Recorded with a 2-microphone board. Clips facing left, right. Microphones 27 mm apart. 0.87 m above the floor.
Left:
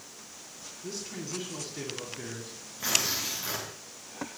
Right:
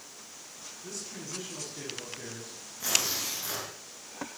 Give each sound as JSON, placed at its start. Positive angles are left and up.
{"t": 0.8, "sound": "a man speaking", "side_deg": 30, "distance_m": 8.5}
{"t": 2.8, "sound": "tearing paper", "side_deg": 20, "distance_m": 8.5}